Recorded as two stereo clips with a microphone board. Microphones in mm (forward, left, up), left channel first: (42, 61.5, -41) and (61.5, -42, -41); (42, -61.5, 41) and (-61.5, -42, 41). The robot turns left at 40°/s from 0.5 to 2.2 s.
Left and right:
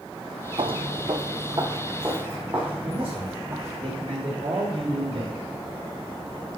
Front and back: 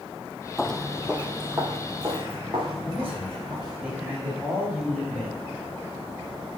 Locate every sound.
0.6 s footsteps: 95° right, 0.6 m; by 3.8 s 150° right, 5 m
2.8 s a man speaking: 115° right, 3.5 m